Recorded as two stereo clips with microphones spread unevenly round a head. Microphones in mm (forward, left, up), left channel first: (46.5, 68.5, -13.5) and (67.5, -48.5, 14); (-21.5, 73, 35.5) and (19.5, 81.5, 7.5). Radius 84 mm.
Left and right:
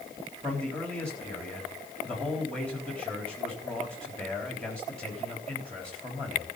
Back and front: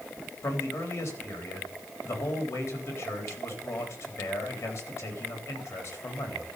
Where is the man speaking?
175° right, 4 m.